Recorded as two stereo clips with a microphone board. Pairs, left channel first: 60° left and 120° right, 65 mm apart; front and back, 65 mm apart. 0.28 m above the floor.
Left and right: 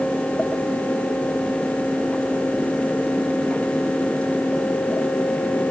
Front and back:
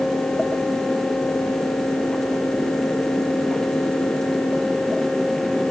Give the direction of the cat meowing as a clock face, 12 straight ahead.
I don't hear a cat meowing.